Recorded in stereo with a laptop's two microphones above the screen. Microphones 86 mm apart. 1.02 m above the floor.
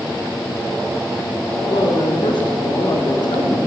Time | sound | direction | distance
1.6 | a woman speaking | 60° left (ahead or behind) | 2 m